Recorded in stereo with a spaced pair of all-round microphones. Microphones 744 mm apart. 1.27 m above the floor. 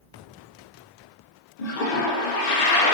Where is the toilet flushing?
65° left (ahead or behind), 0.5 m.